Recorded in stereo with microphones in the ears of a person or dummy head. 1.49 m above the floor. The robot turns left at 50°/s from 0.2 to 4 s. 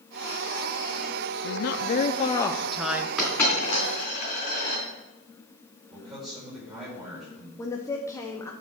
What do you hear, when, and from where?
1.4 s a woman speaking: 65° left, 0.6 m; by 3.1 s 15° right, 0.6 m
3.2 s a dropped coin: centre (ahead or behind), 3.5 m; by 4.8 s 35° left (ahead or behind), 3.5 m
5.9 s a man speaking: centre (ahead or behind), 5 m
7.6 s a woman speaking: 20° left (ahead or behind), 0.8 m